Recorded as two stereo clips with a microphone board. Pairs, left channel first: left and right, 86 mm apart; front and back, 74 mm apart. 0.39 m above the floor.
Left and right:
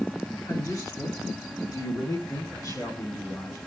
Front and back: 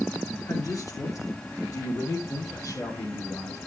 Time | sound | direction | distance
0.5 | a man speaking | 45° left | 5.5 m